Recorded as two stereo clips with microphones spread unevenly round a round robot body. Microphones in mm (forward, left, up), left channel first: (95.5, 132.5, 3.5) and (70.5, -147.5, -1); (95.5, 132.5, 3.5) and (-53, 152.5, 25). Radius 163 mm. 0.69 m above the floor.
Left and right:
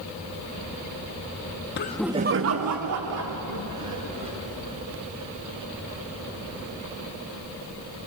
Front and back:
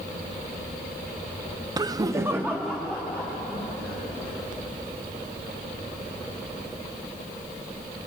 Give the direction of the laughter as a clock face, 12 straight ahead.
8 o'clock.